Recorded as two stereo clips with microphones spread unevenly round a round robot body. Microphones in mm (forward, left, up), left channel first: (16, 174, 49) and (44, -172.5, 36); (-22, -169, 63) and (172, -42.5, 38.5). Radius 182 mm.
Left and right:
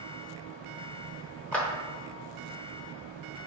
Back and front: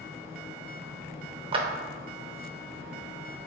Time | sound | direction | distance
1.5 | a clap | 5° left | 0.8 m